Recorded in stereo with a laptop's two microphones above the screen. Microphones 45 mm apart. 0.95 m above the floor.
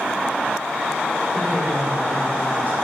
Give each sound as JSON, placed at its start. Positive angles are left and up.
{"t": 1.3, "sound": "a woman speaking", "side_deg": -45, "distance_m": 4.0}